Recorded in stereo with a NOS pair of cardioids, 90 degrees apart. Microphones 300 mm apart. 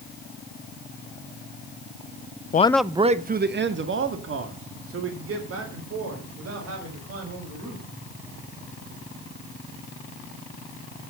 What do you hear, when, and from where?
2.5 s a man speaking: 30° left, 0.6 m; by 7.8 s 55° right, 7 m